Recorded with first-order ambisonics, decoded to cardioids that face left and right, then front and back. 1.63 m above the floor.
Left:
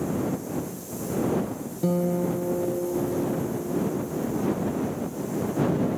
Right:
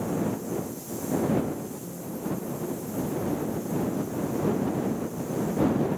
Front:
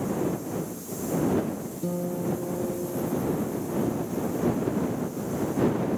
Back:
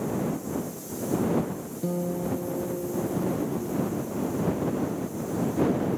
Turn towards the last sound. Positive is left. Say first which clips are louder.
# left 15 dB, back 1 dB
turn(degrees=95)